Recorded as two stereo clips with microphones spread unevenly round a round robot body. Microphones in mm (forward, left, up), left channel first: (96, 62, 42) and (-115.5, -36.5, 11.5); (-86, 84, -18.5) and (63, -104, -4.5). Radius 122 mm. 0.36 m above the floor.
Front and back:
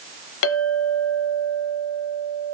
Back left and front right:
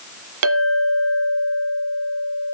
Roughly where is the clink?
Ahead.